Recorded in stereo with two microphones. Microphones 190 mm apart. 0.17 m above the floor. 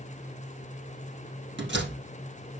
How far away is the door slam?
About 3 m.